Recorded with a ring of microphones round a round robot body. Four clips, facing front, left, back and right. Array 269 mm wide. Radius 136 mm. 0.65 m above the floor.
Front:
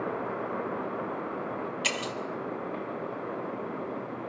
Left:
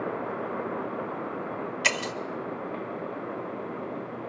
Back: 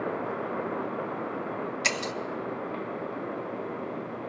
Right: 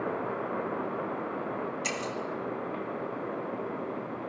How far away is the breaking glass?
About 0.6 m.